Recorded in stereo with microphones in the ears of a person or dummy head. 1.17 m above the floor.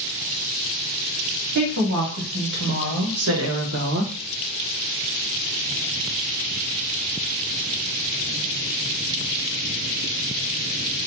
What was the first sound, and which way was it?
A woman speaking, 55° right (ahead or behind).